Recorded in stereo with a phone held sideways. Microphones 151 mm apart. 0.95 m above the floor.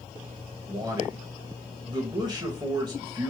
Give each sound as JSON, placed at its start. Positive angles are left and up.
{"t": 0.7, "sound": "a man speaking", "side_deg": -30, "distance_m": 0.7}